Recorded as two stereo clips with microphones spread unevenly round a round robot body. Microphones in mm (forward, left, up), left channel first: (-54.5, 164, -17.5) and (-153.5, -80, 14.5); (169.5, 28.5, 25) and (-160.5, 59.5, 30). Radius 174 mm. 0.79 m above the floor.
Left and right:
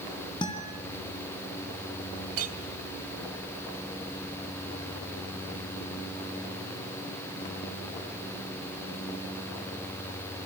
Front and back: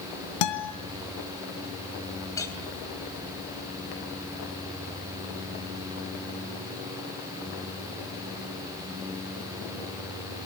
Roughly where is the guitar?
Ahead.